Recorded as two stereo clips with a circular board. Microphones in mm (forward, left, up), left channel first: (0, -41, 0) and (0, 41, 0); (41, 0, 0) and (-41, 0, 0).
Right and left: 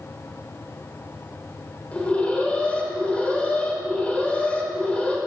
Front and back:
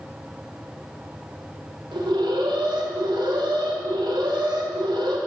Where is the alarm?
165° right, 1.9 m.